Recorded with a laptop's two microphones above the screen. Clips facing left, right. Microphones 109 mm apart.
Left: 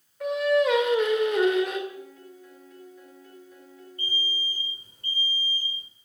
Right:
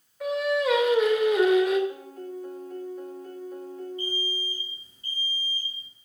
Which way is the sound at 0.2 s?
Centre (ahead or behind).